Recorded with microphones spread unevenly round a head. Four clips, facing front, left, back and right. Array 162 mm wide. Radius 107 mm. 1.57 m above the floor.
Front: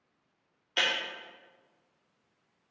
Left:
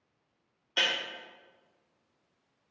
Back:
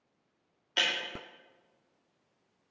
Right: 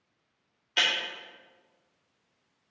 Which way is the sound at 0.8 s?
160° left.